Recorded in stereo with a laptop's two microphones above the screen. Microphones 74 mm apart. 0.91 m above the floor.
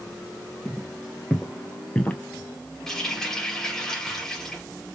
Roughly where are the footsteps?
Centre.